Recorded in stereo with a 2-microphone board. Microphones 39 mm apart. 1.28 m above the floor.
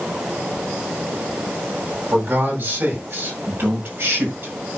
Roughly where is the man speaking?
Right.